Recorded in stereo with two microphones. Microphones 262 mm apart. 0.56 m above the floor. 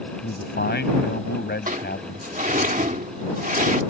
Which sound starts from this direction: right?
A sliding door, at 1.7 s.